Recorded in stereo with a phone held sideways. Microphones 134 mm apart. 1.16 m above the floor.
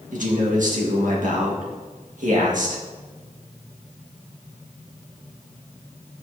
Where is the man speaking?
70° right (ahead or behind), 1.8 m.